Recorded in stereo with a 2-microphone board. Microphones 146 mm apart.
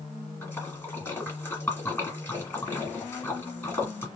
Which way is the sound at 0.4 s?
15° left (ahead or behind).